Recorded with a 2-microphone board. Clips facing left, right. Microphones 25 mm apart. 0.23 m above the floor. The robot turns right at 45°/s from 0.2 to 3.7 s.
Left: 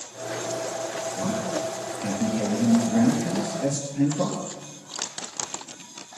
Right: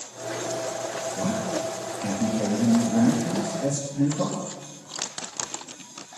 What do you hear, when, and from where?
1.2 s a man speaking: 40° right, 4.5 m; by 4.4 s 75° left, 4.5 m